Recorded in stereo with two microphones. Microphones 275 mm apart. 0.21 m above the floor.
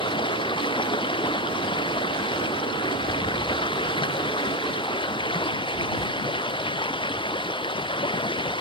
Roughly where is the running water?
Centre.